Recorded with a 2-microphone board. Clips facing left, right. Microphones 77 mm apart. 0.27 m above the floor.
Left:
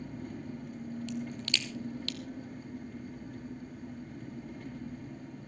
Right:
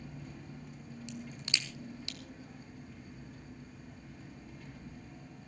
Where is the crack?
20° right (ahead or behind), 1.2 m.